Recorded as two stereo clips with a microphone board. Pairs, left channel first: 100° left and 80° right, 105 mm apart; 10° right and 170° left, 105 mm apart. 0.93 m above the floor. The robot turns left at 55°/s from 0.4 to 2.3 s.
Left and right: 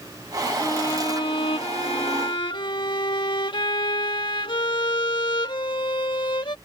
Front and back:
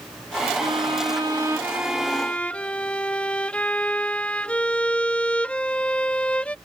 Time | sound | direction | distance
0.6 | a violin | 160° left | ?